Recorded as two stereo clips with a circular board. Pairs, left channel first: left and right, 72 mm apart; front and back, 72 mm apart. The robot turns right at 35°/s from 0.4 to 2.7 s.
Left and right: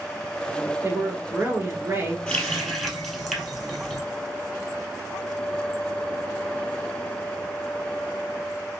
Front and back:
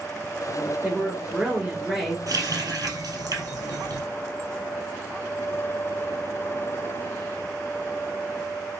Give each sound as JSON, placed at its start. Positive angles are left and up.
{"t": 0.8, "sound": "a woman speaking", "azimuth_deg": -135, "distance_m": 2.0}
{"t": 2.3, "sound": "a running tap", "azimuth_deg": 165, "distance_m": 1.7}